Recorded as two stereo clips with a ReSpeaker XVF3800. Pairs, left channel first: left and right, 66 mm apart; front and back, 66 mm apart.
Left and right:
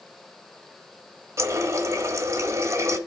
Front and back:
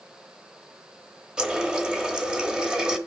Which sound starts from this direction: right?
A running tap, at 1.4 s.